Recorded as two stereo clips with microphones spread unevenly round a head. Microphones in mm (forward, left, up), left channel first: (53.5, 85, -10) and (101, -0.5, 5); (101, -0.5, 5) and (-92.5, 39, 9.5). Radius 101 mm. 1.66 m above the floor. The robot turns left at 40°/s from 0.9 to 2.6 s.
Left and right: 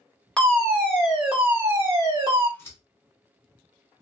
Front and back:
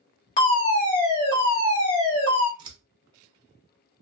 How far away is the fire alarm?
About 1.7 m.